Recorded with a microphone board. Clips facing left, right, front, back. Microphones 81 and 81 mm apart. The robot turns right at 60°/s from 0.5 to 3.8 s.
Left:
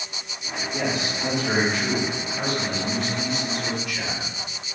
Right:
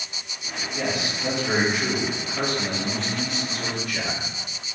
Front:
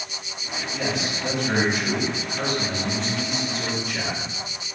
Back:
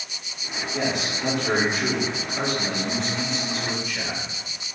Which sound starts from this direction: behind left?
A man speaking, at 0.7 s.